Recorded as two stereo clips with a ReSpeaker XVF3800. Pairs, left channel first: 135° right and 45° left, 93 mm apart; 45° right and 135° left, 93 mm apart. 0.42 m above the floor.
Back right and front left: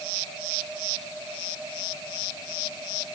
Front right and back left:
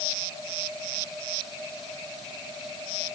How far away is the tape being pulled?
No tape being pulled in this recording.